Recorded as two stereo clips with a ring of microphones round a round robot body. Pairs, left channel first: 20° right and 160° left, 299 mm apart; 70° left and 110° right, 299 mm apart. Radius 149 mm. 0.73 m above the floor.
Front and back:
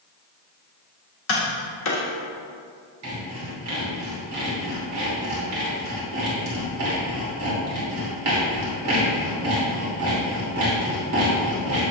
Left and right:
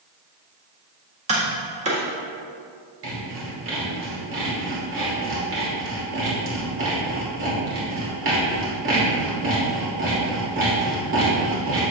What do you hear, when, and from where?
1.3 s tapping: 50° right, 1.5 m
3.0 s sawing: 160° right, 2.5 m